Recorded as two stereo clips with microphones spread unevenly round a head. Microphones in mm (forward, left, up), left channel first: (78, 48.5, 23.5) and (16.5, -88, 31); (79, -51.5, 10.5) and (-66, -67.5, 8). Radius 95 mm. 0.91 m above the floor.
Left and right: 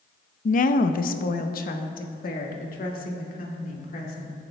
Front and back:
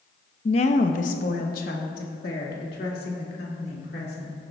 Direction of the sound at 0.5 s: 55° left.